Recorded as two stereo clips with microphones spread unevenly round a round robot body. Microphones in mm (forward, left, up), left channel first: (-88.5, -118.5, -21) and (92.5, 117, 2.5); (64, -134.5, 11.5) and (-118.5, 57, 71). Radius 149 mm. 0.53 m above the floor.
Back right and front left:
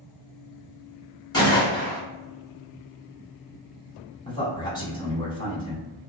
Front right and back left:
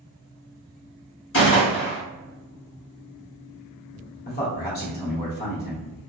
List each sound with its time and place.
1.3 s a gunshot: 55° right, 1.8 m
4.2 s a man speaking: 60° right, 1.7 m